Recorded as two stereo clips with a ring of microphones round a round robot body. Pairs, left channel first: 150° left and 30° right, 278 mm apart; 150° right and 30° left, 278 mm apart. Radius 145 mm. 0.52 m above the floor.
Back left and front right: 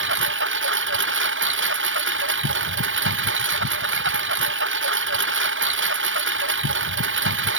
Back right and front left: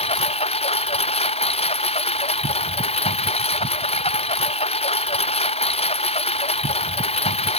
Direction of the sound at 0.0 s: 80° right.